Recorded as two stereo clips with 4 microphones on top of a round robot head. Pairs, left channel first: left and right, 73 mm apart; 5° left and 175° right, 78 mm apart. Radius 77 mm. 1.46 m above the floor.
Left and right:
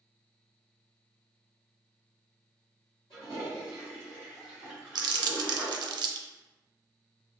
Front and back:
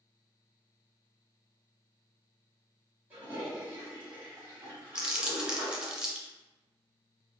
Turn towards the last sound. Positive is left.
turn(degrees=-95)